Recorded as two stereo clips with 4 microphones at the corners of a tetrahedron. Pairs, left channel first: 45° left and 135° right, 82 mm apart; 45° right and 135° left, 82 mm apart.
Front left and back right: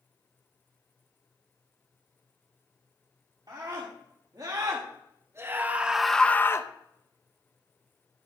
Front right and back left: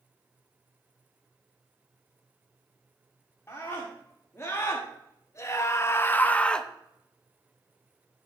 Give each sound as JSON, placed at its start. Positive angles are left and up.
{"t": 3.5, "sound": "a scream", "azimuth_deg": -105, "distance_m": 2.0}